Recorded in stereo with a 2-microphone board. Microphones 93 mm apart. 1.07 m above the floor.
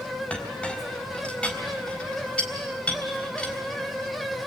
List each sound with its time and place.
0.3 s a clink: 10° left (ahead or behind), 3.5 m